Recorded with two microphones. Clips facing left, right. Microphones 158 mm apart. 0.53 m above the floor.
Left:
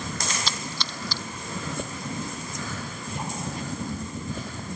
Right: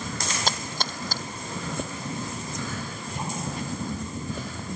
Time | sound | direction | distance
0.5 | a splash | 50° right (ahead or behind) | ?